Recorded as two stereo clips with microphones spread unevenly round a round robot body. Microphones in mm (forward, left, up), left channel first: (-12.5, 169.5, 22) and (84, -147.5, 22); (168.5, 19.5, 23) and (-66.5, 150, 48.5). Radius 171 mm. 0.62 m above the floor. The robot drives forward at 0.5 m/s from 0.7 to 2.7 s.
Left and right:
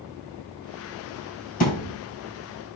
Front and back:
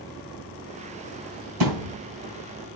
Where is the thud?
175° left, 1.8 m.